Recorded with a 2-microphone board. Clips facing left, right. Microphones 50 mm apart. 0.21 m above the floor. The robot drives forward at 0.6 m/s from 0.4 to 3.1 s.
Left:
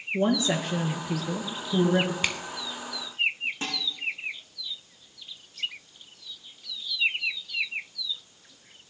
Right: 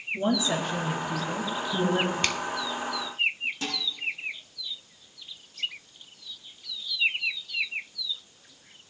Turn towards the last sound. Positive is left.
turn(degrees=30)  # may be behind; listen again after turning